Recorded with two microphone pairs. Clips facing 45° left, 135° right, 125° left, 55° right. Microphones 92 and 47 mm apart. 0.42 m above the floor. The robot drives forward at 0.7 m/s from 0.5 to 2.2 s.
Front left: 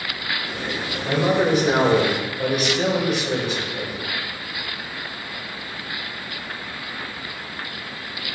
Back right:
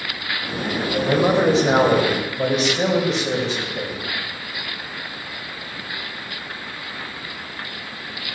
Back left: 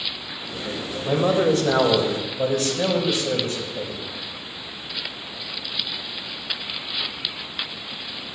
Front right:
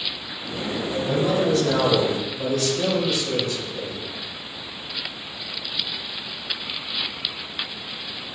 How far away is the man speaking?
About 1.4 m.